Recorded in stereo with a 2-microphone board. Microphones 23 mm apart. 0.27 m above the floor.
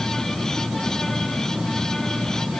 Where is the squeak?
I don't hear a squeak.